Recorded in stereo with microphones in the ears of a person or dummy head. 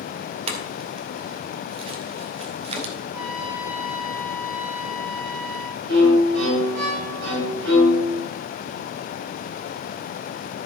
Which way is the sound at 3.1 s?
10° right (ahead or behind).